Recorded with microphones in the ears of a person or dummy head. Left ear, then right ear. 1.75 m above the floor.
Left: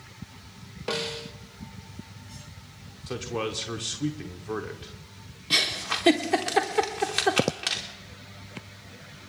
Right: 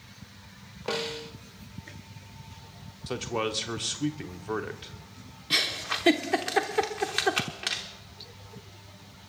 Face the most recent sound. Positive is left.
turn(degrees=0)  # may be behind; listen again after turning